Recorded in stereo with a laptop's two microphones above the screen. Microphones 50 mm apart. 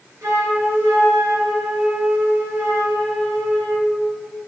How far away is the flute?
About 4.5 m.